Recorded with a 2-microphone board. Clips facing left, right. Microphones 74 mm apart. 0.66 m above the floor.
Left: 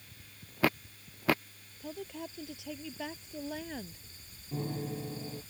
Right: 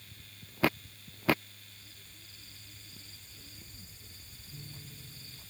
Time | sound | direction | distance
1.8 | a woman speaking | 90° left | ?
4.5 | a piano | 70° left (ahead or behind) | ?